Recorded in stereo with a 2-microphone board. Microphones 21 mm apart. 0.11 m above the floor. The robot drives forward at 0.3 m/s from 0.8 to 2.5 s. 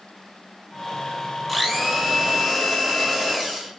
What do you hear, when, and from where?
1.5 s a blender: centre (ahead or behind), 0.6 m